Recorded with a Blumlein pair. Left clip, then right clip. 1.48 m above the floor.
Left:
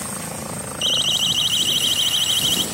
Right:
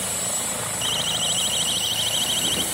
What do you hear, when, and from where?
0.8 s a siren: 70° left; by 2.6 s 75° left